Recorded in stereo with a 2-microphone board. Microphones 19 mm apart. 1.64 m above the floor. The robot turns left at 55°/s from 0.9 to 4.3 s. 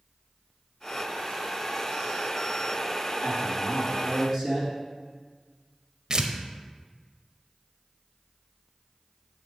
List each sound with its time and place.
3.2 s a man speaking: 75° left, 3 m; by 4.8 s 15° left, 3 m
6.1 s tearing paper: 40° right (ahead or behind), 0.6 m